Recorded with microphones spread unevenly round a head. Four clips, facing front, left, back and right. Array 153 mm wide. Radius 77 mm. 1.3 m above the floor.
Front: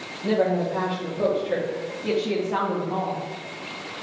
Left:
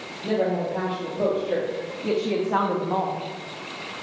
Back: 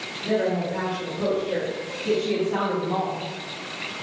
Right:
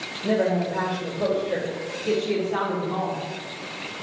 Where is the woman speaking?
40° left, 4 m; by 3.3 s 105° left, 1.9 m.